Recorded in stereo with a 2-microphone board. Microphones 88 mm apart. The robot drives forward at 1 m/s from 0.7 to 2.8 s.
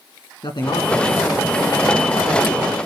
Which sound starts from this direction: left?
A man speaking, at 0.4 s.